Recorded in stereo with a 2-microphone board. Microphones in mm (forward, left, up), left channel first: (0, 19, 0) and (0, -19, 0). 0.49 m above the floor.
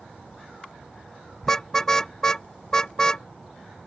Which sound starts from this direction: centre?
A car horn, at 1.4 s.